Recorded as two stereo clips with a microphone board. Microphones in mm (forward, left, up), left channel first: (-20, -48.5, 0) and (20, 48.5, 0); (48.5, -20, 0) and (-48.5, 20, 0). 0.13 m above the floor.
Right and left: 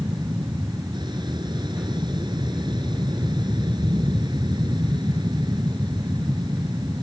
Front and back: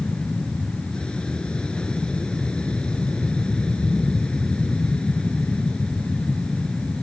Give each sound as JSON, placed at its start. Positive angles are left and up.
{"t": 0.0, "sound": "an aircraft", "azimuth_deg": 55}